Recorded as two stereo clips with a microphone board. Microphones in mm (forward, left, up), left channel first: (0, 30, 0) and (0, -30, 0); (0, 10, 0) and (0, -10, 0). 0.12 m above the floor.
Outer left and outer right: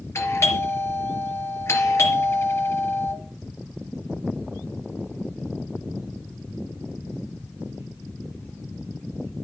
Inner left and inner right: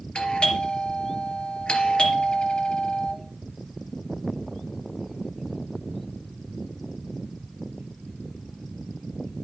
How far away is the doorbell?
About 3 m.